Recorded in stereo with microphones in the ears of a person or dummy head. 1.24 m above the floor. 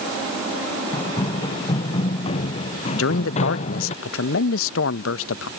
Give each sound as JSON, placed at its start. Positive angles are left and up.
{"t": 0.9, "sound": "running footsteps", "side_deg": 25}
{"t": 2.9, "sound": "a man speaking", "side_deg": 85}